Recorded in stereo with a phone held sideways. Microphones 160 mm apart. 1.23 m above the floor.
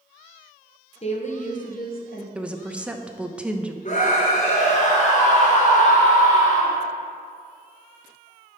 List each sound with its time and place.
1.0 s a woman speaking: 40° left (ahead or behind), 0.9 m; by 2.2 s 70° left (ahead or behind), 1.1 m
2.4 s a woman speaking: 5° right (ahead or behind), 0.6 m
3.9 s a scream: 50° left (ahead or behind), 1.8 m